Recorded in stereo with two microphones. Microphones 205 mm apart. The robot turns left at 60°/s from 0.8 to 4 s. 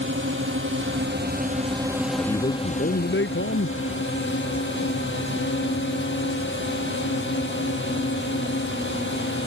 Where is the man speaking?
160° left; by 3.8 s 65° left.